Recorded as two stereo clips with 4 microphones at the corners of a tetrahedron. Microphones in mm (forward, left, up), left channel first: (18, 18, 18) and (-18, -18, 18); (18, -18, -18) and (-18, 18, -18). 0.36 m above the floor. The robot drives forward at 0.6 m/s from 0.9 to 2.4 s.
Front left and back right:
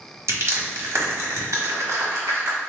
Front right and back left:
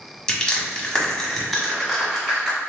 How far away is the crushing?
About 1.0 m.